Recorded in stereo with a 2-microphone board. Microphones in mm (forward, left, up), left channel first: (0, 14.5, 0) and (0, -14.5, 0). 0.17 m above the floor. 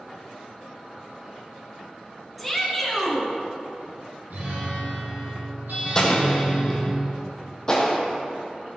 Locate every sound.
2.4 s a shout: centre (ahead or behind), 2 m
4.3 s a guitar: 75° right (ahead or behind), 3 m
6.0 s an explosion: 20° left (ahead or behind), 2 m